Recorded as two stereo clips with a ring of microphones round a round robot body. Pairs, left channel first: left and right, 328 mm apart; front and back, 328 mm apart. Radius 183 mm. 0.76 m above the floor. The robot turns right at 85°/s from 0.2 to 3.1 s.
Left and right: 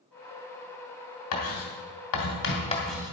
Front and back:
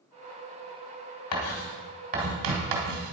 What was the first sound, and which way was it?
Writing, 40° left.